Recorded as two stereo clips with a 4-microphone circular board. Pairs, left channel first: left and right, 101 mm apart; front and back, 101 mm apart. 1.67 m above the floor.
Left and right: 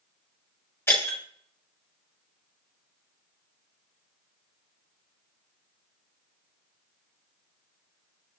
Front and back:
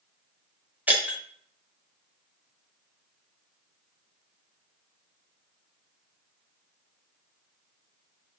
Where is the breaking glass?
125° left, 1.0 m.